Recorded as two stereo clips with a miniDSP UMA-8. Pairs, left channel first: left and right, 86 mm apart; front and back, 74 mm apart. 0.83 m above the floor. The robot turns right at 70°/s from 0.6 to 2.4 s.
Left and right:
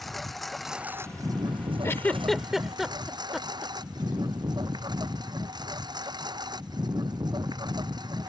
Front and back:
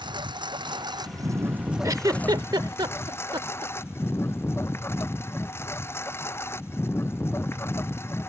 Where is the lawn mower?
Straight behind; by 8.3 s 55° right.